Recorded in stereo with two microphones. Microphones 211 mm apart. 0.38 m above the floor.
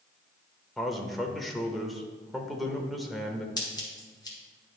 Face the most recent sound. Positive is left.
turn(degrees=20)  # may be behind; listen again after turning